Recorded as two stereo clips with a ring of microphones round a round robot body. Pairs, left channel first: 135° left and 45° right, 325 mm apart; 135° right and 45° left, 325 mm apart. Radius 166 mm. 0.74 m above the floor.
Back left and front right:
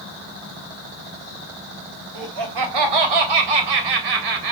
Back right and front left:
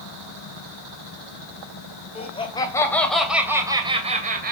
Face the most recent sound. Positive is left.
turn(degrees=-20)